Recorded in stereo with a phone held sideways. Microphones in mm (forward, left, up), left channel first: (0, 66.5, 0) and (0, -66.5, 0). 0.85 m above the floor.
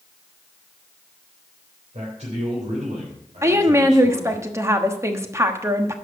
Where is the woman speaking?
20° right (ahead or behind), 1.2 m.